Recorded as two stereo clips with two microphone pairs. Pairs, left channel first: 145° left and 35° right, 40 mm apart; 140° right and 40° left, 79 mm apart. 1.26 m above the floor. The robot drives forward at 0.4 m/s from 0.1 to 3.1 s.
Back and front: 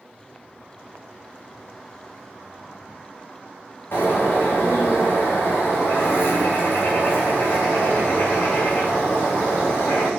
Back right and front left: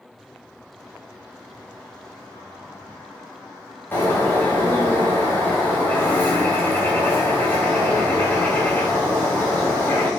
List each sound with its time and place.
3.9 s a bird: 150° left, 4.5 m